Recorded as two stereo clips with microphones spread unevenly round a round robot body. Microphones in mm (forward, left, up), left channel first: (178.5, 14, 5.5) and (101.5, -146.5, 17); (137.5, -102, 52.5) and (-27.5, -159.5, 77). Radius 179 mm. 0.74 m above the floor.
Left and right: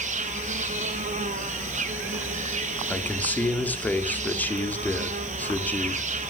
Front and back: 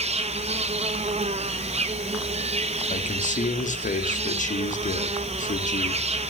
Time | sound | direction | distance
0.0 | an insect | 120° right | 1.5 m
2.9 | a man speaking | 15° right | 2.5 m